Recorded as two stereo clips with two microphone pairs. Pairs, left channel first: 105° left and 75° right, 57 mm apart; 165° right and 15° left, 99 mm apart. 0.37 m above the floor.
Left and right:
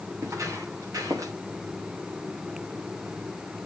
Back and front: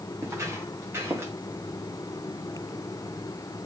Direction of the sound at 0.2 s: 45° right.